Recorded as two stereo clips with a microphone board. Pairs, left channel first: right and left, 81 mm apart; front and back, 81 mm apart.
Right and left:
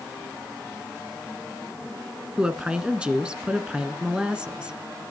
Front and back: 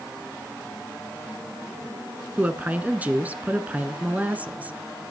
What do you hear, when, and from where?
2.4 s a woman speaking: 150° left, 1.2 m